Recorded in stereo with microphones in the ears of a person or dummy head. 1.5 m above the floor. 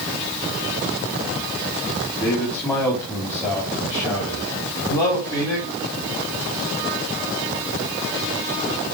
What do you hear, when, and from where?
2.2 s a man speaking: 10° left (ahead or behind), 4 m; by 5.7 s 15° left (ahead or behind), 6 m